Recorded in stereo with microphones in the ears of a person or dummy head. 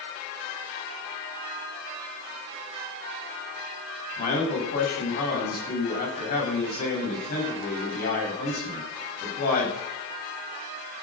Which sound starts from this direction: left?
A man speaking, at 4.2 s.